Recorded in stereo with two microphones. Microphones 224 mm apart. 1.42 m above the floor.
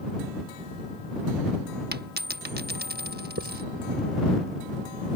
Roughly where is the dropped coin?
Right.